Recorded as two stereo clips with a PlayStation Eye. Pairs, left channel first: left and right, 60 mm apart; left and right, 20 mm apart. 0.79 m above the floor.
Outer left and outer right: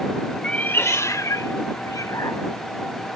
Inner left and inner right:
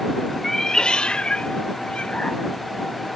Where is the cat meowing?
15° left (ahead or behind); by 3.2 s 75° left (ahead or behind).